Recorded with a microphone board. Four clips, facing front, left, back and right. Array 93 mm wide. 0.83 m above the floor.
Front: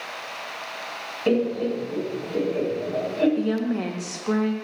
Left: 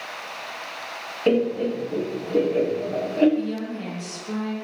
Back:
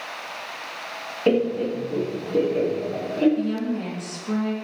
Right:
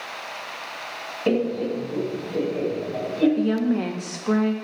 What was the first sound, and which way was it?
Laughter, 140° left.